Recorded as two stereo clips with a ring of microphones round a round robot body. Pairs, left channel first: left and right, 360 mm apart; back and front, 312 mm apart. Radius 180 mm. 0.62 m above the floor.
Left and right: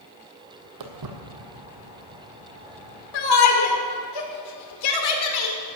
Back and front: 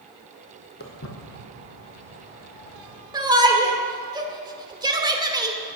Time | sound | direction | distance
0.8 | footsteps | 120° right | 1.5 m
3.1 | a shout | 75° left | 2 m